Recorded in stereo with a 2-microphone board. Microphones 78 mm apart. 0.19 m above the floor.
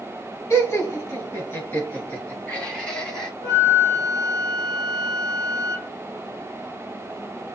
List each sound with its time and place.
0.5 s laughter: 35° left (ahead or behind), 2 m; by 3.3 s 10° left (ahead or behind), 1.9 m
3.4 s a flute: 20° left (ahead or behind), 2 m